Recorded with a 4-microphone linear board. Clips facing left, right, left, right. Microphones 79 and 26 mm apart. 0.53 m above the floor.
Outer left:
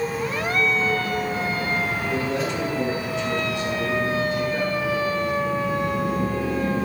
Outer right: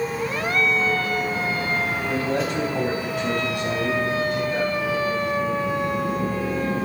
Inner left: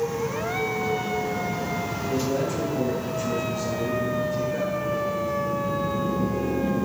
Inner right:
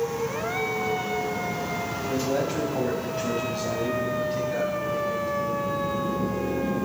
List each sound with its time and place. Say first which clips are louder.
2.1 s a man speaking: outer right 1 dB, even; 45° right (ahead or behind), 3.5 m; by 5.8 s 70° right (ahead or behind), 5.5 m